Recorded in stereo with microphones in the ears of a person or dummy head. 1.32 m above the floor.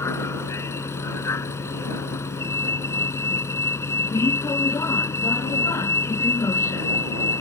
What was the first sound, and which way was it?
A vehicle, 20° left (ahead or behind).